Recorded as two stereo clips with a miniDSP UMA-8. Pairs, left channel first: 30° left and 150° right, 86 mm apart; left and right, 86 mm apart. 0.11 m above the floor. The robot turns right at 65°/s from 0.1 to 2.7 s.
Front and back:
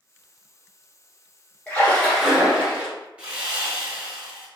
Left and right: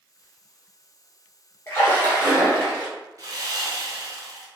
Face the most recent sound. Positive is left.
turn(degrees=-80)